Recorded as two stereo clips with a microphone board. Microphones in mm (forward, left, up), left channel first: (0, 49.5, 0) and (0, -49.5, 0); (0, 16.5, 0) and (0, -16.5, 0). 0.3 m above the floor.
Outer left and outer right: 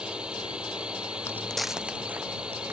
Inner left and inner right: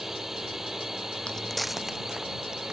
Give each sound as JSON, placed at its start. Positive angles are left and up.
{"t": 0.0, "sound": "a drone", "side_deg": -10}
{"t": 1.3, "sound": "footsteps", "side_deg": 30}